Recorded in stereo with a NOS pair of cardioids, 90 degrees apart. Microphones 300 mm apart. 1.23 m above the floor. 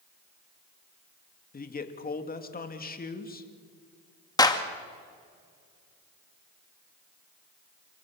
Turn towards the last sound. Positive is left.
turn(degrees=15)